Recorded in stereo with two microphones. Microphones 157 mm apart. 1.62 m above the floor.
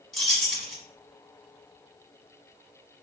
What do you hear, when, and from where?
0.1 s keys jangling: centre (ahead or behind), 1.0 m